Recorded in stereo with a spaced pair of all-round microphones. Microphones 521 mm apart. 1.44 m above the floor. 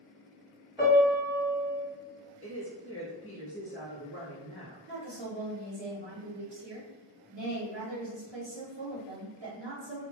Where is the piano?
10° right (ahead or behind), 1.3 m.